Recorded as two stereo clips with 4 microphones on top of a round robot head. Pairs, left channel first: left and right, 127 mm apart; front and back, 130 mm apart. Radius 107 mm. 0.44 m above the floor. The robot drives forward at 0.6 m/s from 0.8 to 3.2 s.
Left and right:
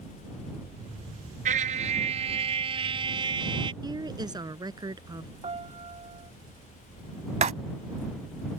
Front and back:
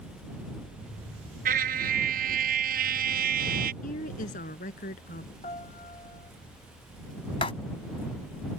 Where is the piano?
45° right.